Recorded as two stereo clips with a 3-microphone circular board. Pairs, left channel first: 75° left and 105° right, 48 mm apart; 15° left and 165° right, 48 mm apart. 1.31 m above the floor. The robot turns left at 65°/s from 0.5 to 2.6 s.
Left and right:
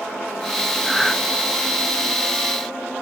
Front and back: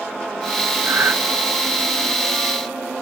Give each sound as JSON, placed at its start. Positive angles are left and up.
{"t": 0.8, "sound": "breathing", "azimuth_deg": 170, "distance_m": 1.0}